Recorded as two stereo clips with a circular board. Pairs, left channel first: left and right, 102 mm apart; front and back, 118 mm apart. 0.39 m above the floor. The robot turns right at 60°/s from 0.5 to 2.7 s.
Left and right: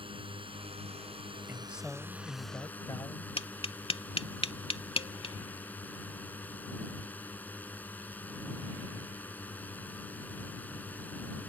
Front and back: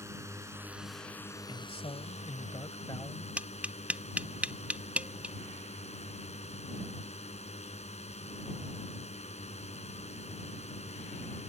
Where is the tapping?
105° left.